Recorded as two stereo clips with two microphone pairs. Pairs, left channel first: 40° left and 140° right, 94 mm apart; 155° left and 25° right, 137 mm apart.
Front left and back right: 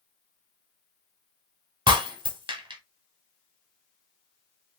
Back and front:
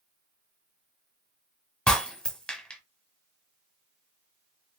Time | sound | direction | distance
1.9 | breaking glass | 125° right | 1.1 m